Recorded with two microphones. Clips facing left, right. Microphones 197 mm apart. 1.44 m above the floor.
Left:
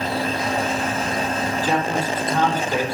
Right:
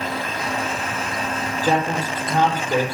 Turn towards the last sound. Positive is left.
turn(degrees=-45)  # may be behind; listen again after turning